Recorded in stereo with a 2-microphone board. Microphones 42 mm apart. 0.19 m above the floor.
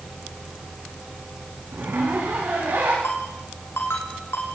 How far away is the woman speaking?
I don't hear a woman speaking.